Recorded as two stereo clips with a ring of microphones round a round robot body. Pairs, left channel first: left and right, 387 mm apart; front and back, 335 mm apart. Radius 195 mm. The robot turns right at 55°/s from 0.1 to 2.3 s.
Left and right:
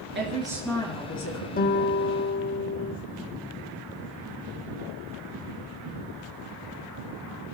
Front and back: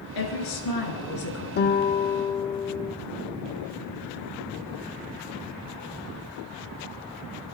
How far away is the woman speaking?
About 5.5 m.